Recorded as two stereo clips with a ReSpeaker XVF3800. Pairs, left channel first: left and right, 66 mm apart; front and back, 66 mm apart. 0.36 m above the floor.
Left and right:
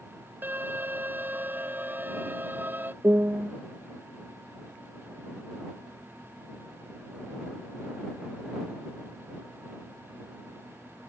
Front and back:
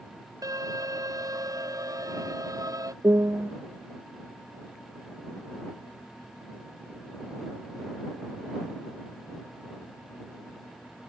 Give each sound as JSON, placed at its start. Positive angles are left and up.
{"t": 0.4, "sound": "an alarm", "azimuth_deg": -150}
{"t": 3.0, "sound": "a piano", "azimuth_deg": -145}